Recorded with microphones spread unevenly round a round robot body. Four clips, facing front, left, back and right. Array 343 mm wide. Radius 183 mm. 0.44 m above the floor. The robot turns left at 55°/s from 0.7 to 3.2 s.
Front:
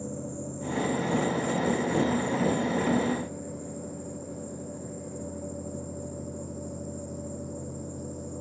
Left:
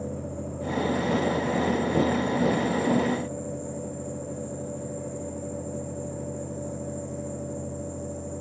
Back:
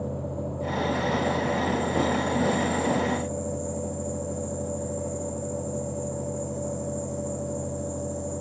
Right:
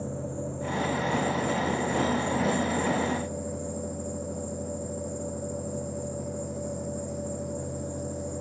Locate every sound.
0.0 s an insect: 10° left, 0.8 m; by 8.4 s 125° right, 0.8 m